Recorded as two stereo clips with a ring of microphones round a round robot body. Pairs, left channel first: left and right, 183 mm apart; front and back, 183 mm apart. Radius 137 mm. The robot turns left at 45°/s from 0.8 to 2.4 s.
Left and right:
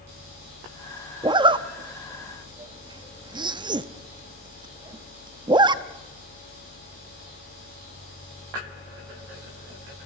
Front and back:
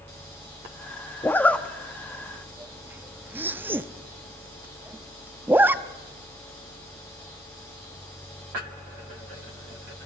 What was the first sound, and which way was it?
A zipper, 60° right.